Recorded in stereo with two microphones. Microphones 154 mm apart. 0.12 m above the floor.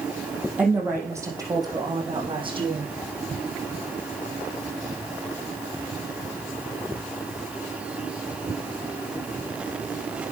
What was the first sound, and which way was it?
A woman speaking, 10° right (ahead or behind).